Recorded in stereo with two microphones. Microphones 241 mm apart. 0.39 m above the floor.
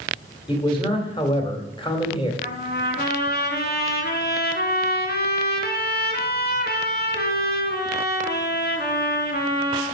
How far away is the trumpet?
About 1.8 m.